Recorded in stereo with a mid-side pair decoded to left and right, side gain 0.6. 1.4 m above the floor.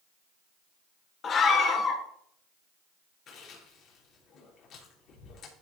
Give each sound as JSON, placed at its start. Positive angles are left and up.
{"t": 1.2, "sound": "a scream", "azimuth_deg": 40, "distance_m": 2.0}
{"t": 3.3, "sound": "chewing", "azimuth_deg": 60, "distance_m": 4.5}